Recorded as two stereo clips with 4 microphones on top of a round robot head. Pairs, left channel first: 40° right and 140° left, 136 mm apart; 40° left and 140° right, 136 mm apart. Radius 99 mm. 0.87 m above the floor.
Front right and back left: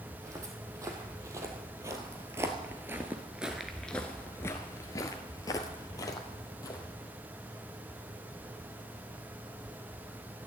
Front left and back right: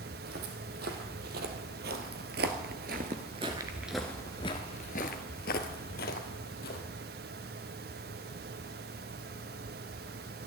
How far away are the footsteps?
About 2.5 m.